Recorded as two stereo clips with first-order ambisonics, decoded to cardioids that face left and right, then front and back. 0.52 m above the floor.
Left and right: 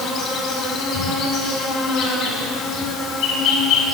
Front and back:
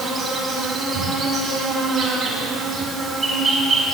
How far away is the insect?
About 2.0 m.